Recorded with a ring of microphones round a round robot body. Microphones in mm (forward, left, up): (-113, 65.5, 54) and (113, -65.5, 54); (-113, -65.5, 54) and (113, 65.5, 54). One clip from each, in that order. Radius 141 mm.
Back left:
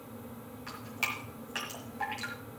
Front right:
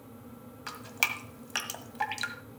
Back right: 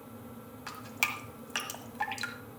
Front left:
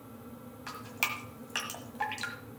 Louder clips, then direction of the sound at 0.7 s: Front right 4 dB, back right 1 dB; 70° right.